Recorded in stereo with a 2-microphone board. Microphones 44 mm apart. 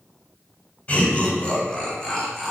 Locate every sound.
0.9 s laughter: 30° left (ahead or behind), 1.0 m; by 2.5 s 5° left (ahead or behind), 1.3 m